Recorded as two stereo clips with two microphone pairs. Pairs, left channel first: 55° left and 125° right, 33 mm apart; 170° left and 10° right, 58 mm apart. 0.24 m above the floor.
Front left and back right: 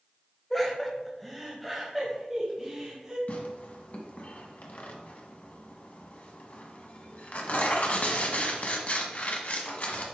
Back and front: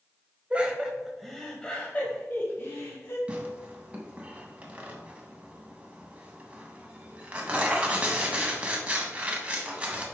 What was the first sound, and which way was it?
Laughter, 15° right.